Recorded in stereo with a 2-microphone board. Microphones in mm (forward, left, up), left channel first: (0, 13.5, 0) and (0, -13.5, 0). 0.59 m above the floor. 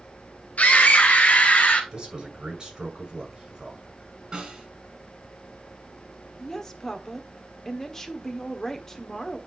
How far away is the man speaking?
About 6.5 m.